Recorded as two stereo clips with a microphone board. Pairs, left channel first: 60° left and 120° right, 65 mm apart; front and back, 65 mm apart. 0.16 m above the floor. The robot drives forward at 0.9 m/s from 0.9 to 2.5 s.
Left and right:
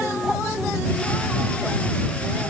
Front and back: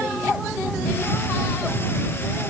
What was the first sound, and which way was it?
Only background noise.